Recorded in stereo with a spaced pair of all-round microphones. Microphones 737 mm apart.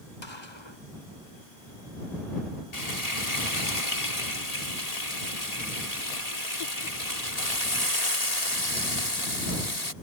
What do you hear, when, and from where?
0.2 s a gunshot: 35° left (ahead or behind)
2.7 s frying: 55° left (ahead or behind)